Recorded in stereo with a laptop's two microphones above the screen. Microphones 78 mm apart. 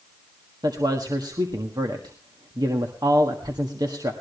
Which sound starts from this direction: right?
A man speaking, at 0.6 s.